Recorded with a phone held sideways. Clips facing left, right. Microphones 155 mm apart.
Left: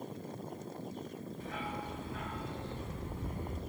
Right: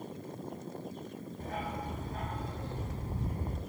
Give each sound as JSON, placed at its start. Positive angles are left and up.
{"t": 1.4, "sound": "a dog barking", "side_deg": -45, "distance_m": 3.0}